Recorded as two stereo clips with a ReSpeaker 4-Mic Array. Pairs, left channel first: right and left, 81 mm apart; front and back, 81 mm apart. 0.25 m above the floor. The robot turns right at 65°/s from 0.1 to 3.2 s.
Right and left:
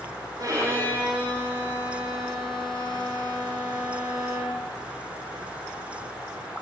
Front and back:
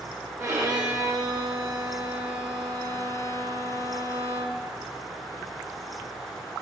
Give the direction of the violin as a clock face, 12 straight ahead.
8 o'clock.